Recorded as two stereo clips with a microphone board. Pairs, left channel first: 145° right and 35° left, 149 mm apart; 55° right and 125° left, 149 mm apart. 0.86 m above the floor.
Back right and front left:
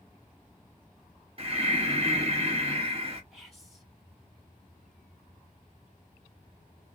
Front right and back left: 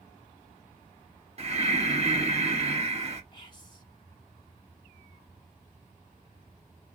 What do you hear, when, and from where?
1.4 s breathing: 80° left, 1.0 m
3.3 s whispering: 55° right, 0.6 m